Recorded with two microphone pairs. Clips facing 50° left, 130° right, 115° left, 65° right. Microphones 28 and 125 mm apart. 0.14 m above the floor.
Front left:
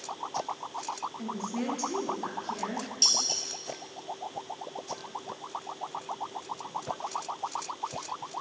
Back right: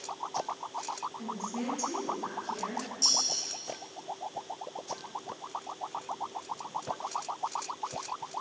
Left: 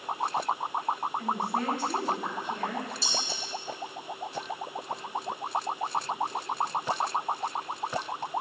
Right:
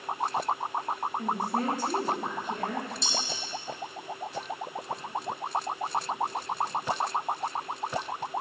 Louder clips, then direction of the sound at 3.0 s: Front left 2 dB, even; 35° left.